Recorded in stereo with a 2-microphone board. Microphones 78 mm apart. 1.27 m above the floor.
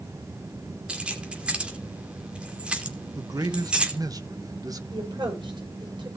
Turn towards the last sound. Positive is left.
turn(degrees=-75)  # may be behind; listen again after turning